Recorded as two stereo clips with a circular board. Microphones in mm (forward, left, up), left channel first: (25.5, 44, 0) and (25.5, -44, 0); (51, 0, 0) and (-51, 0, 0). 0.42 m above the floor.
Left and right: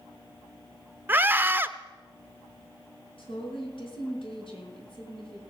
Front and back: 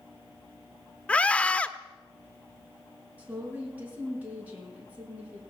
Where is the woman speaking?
105° left, 5 m.